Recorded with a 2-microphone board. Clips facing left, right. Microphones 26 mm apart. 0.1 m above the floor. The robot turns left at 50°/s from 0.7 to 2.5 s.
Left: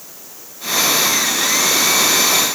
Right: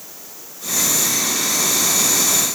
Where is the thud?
No thud in this recording.